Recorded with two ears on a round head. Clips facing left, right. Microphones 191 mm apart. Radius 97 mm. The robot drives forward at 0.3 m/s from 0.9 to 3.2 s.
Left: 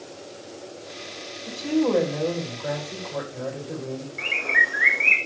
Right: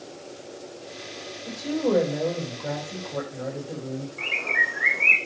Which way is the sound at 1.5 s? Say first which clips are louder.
Left 2 dB; 5° right (ahead or behind).